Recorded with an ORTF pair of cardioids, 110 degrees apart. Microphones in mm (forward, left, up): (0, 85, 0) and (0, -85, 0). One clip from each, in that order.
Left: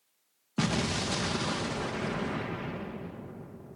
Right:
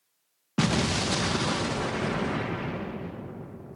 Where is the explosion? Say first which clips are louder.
Right 4 dB; 25° right.